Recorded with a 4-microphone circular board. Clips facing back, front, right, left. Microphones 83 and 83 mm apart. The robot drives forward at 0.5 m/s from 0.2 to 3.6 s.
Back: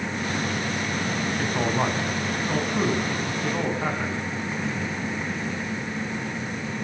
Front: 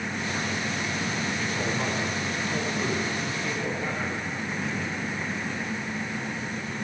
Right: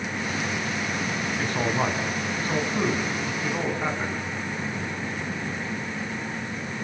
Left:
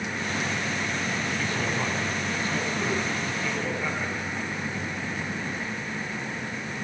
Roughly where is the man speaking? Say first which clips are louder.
Back 4 dB, right 3 dB; behind right.